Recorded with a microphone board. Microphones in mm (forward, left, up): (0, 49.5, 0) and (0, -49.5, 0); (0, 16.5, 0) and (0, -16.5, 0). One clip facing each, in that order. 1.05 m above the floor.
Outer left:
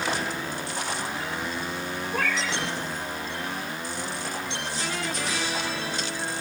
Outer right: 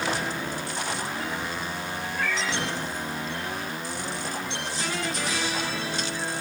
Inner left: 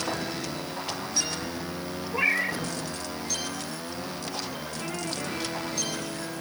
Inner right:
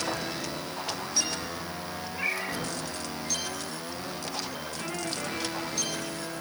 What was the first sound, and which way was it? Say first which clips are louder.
A cat meowing: outer left 1 dB, inner left 6 dB; 80° left.